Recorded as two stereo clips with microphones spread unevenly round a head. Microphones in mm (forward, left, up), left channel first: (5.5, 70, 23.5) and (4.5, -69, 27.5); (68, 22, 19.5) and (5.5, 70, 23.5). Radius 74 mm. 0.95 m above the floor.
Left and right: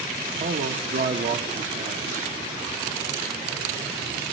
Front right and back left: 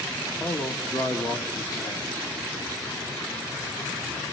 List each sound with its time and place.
0.4 s a man speaking: 100° right, 1.5 m